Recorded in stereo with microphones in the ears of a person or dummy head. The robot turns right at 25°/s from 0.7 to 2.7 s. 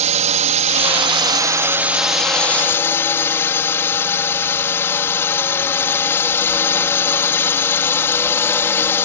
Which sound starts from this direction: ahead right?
A drone, at 0.0 s.